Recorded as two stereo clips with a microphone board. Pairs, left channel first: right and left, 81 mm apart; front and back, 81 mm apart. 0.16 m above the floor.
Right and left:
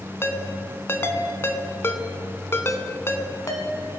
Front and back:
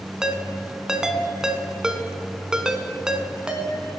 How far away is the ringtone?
About 0.9 m.